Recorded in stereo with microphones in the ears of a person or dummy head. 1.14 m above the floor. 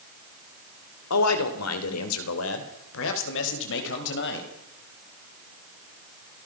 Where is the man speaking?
85° left, 3 m; by 4.5 s 60° left (ahead or behind), 5 m.